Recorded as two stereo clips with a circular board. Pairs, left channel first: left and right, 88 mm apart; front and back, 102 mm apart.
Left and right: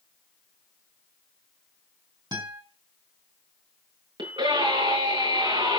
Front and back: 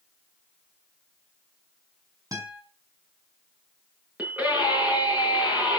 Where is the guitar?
125° right, 5.5 m.